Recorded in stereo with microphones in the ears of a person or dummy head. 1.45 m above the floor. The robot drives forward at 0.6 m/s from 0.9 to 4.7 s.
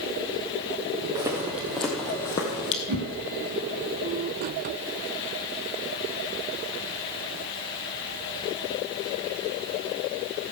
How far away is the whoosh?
About 5 m.